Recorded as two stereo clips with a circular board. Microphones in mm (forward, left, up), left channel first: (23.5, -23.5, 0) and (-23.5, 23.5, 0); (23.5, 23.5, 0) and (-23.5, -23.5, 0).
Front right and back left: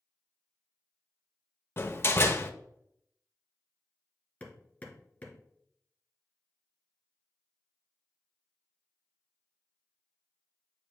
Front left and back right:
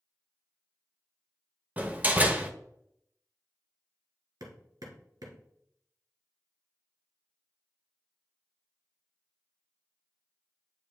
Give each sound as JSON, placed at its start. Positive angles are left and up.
{"t": 1.8, "sound": "a door slam", "azimuth_deg": -80, "distance_m": 0.7}
{"t": 4.4, "sound": "hammering", "azimuth_deg": -115, "distance_m": 1.4}